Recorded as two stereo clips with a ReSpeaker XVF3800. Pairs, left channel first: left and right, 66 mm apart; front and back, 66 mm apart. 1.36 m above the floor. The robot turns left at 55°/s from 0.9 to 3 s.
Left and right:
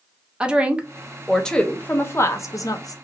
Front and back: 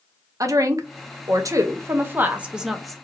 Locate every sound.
0.4 s a woman speaking: 160° right, 0.5 m; by 3.0 s 85° left, 0.5 m